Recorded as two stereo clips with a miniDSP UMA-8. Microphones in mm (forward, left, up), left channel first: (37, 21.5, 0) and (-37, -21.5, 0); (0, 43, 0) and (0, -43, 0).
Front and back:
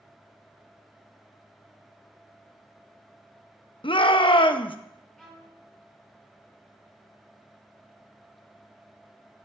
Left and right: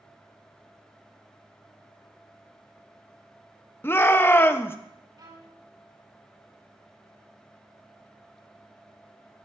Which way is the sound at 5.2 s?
60° right.